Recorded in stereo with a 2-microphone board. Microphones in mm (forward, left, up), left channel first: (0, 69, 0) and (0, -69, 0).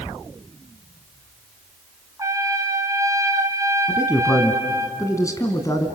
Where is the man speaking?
25° left (ahead or behind), 2 m.